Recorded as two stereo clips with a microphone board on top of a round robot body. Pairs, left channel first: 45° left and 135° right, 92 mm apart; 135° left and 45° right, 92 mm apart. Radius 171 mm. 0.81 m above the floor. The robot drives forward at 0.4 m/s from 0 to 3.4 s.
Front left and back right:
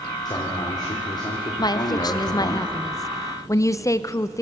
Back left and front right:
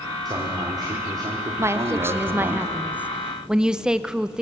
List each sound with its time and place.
0.2 s a man speaking: straight ahead, 2.5 m
1.6 s a woman speaking: 10° left, 1.3 m; by 4.4 s 30° left, 0.9 m